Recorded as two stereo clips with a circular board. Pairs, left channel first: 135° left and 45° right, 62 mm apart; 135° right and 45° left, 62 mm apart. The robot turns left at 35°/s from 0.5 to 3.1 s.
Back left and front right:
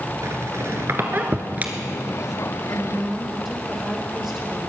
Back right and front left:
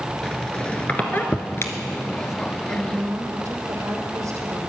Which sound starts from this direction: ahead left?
A woman speaking, at 2.7 s.